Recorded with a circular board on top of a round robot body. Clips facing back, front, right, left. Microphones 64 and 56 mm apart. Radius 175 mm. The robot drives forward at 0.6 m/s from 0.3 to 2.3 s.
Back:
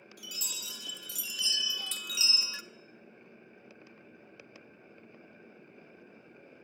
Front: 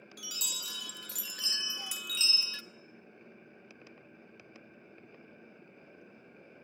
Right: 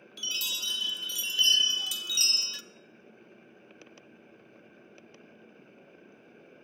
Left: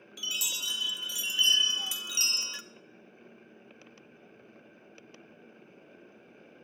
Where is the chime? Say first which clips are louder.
Front 1 dB, even; 10° left, 1.2 m; by 2.6 s 125° left, 0.6 m.